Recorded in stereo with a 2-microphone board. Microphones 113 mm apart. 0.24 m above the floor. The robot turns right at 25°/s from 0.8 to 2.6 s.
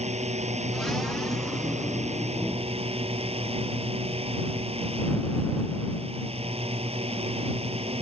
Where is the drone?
105° right; by 8.0 s 60° right.